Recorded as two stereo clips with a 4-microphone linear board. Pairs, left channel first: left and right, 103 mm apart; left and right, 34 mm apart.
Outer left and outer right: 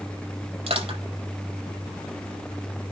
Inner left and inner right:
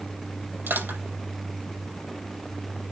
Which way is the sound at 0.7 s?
80° right.